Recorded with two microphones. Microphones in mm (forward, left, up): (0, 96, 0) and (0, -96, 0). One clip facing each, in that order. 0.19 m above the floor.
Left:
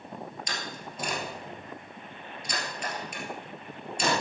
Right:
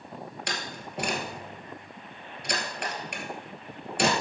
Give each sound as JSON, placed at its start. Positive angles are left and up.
{"t": 0.5, "sound": "a door slam", "side_deg": -75, "distance_m": 2.5}